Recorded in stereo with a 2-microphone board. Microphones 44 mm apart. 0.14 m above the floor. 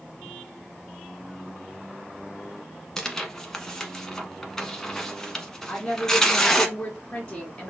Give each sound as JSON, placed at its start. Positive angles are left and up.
{"t": 3.0, "sound": "tearing paper", "side_deg": 10, "distance_m": 0.9}
{"t": 5.7, "sound": "a woman speaking", "side_deg": 20, "distance_m": 1.7}